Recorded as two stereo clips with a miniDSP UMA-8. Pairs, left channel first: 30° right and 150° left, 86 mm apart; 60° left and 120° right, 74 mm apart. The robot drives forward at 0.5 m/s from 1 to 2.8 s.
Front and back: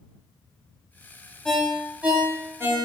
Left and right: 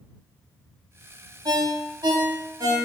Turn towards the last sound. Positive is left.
turn(degrees=-150)